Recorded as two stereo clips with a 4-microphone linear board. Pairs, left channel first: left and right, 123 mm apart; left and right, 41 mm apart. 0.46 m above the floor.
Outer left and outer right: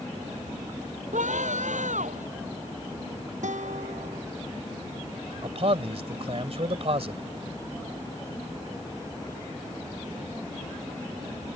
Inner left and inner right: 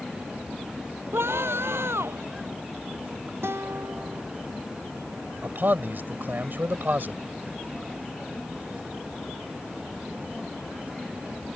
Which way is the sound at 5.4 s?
55° right (ahead or behind).